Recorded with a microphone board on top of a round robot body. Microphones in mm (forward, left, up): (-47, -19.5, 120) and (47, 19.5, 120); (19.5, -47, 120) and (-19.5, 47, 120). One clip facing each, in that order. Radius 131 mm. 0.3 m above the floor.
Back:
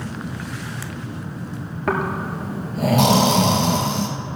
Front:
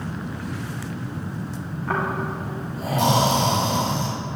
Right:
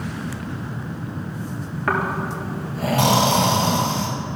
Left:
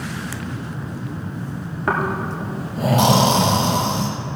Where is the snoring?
175° right, 1.4 m.